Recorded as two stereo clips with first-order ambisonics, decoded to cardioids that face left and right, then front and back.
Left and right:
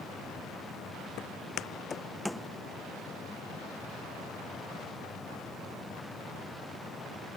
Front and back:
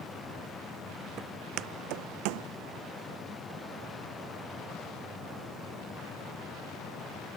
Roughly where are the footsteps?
Behind left.